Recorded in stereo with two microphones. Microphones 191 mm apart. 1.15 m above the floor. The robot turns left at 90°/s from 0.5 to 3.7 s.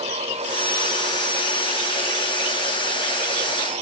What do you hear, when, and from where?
Only background noise.